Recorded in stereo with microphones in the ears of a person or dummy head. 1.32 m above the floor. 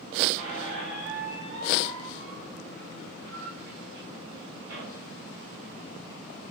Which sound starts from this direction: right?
A squeak, at 0.4 s.